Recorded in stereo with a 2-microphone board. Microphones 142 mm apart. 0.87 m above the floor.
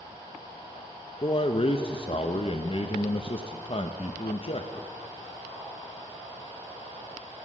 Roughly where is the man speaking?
Left.